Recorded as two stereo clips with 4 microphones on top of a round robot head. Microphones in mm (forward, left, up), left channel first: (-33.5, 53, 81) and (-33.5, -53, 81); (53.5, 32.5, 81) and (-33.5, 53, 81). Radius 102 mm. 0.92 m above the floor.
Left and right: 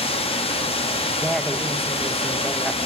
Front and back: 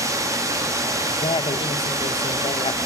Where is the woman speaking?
Straight ahead, 0.7 m.